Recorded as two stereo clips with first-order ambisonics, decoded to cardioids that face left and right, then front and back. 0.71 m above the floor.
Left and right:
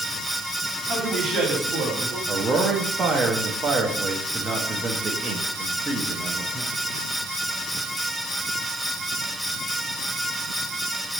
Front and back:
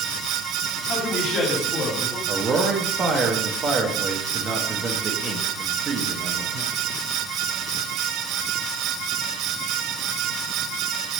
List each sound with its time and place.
0.9 s a man speaking: 40° right, 1.8 m
2.3 s a man speaking: 145° right, 0.6 m